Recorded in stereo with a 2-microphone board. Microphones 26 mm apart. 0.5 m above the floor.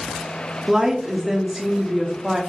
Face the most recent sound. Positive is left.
turn(degrees=-15)  # may be behind; listen again after turning